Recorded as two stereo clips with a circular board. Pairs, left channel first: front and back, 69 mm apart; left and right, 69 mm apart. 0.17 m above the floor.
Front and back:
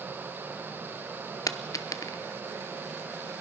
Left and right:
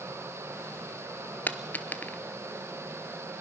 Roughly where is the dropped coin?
Ahead left.